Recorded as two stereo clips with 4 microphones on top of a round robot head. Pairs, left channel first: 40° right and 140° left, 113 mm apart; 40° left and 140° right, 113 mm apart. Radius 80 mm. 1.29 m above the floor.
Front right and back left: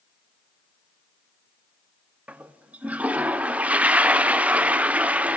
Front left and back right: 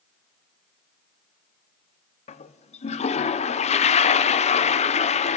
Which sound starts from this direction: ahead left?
A toilet flushing, at 2.3 s.